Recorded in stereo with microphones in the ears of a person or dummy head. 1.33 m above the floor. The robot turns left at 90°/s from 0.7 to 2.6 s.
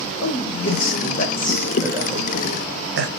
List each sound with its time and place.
0.2 s a man speaking: 90° left, 0.9 m; by 3.1 s 80° right, 0.9 m